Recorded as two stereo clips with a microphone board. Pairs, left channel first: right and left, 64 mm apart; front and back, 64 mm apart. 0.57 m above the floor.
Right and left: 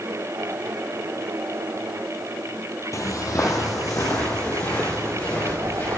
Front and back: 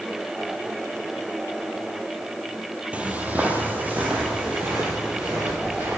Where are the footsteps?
110° right, 1.0 m; by 6.0 s 120° right, 4.5 m.